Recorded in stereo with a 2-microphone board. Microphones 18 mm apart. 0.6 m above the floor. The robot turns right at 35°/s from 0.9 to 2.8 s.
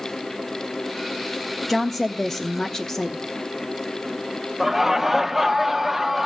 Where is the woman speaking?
Straight ahead, 0.7 m; by 3.2 s 40° left, 0.7 m.